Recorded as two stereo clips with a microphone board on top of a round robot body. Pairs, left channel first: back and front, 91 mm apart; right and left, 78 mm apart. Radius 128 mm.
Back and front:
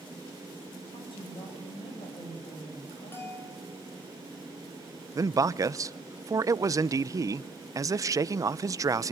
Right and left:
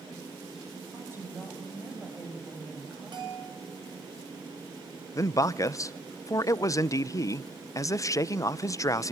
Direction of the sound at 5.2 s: 50° right.